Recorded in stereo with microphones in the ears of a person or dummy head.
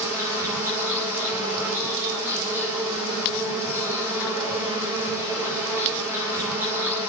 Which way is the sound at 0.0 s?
15° right (ahead or behind).